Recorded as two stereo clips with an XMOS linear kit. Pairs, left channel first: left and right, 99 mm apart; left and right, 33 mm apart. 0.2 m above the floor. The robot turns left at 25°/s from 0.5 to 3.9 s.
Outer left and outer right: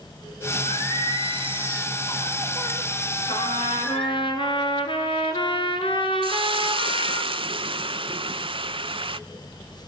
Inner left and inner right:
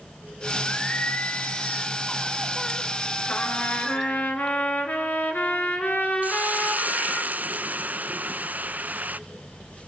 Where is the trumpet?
70° left (ahead or behind), 2.5 m; by 7.2 s 65° left (ahead or behind), 2.5 m.